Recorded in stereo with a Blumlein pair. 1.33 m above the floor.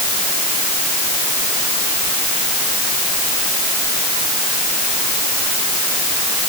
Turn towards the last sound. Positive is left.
No sound to turn to.